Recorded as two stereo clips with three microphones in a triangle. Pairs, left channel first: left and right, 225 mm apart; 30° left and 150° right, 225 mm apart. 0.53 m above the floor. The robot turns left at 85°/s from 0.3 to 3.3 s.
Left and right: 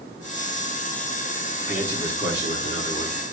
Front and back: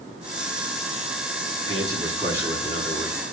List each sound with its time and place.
1.7 s a man speaking: 170° right, 6 m; by 3.2 s 60° left, 6 m